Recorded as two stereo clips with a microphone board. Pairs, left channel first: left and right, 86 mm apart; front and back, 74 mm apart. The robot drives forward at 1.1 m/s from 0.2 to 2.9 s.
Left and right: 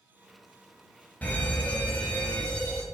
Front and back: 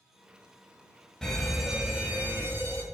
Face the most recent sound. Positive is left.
turn(degrees=160)